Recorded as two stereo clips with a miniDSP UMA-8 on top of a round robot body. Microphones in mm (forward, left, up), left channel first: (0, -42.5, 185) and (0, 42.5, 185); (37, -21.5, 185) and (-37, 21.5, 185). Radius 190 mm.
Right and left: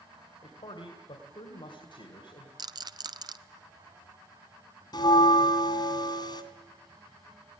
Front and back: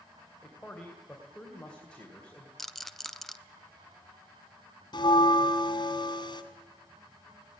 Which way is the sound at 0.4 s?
110° right.